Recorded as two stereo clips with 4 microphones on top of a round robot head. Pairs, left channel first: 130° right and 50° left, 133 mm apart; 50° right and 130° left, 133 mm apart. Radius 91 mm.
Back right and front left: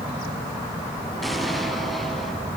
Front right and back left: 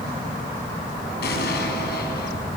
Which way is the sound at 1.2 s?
45° right.